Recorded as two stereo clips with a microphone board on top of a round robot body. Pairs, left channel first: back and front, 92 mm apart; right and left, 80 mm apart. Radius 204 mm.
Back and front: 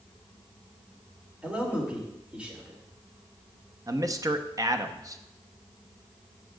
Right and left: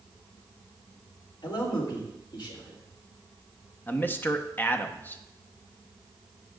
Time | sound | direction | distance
1.4 | a man speaking | 80° right | 3 m
3.9 | a man speaking | 35° right | 1.1 m